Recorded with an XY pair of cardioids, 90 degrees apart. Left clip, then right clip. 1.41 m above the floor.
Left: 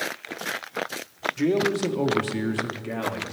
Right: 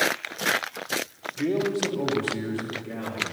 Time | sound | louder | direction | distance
1.4 | a man speaking | left 1 dB | 25° left | 1.1 m